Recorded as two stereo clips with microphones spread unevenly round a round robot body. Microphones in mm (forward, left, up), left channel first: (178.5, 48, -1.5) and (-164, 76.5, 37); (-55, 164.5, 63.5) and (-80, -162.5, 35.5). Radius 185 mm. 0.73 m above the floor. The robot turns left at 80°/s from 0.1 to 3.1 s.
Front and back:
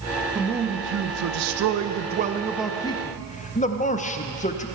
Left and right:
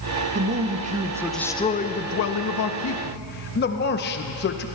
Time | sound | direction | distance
0.3 | a man speaking | 100° right | 0.7 m